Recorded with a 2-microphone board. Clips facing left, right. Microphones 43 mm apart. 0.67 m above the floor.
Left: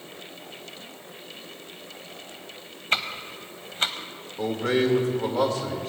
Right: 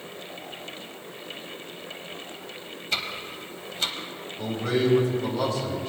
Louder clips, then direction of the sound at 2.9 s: Left 4 dB; 40° left (ahead or behind).